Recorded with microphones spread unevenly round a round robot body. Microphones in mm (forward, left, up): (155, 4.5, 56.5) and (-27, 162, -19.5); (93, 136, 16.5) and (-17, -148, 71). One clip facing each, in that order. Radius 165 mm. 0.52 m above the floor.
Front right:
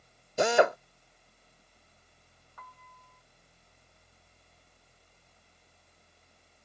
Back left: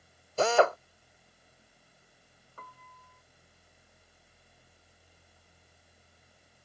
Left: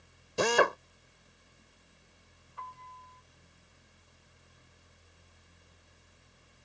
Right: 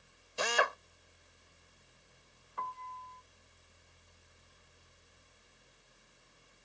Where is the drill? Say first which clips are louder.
Even, left 9 dB; 40° left.